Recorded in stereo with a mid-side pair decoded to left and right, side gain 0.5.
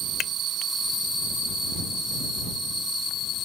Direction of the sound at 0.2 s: 55° left.